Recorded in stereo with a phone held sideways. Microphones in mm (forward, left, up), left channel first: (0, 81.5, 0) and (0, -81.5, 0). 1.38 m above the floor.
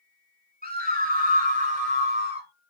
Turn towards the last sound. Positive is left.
turn(degrees=-40)  # may be behind; listen again after turning